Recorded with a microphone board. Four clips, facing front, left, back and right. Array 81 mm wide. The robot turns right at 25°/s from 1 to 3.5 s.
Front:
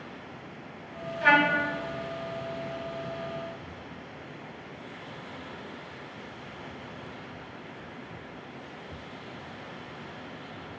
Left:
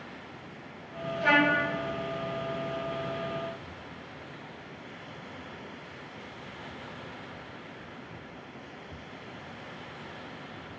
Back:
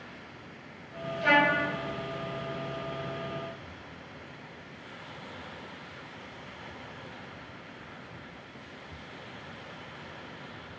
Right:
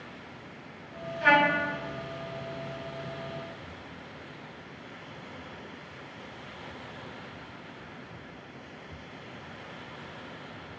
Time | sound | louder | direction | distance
1.2 | a trumpet | right 2 dB, front 2 dB | 35° right | 1.0 m